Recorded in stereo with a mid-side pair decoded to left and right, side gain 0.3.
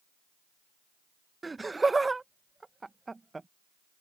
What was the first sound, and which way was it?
Laughter, 30° right.